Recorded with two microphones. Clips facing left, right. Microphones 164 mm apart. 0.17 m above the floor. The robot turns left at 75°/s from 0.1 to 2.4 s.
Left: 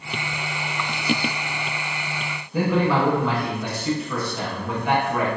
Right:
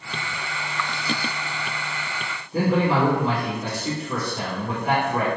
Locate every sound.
2.5 s a man speaking: 40° right (ahead or behind), 1.3 m